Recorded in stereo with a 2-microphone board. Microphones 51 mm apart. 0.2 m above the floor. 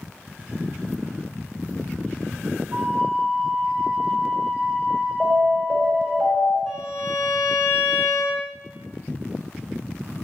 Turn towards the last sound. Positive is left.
turn(degrees=-20)  # may be behind; listen again after turning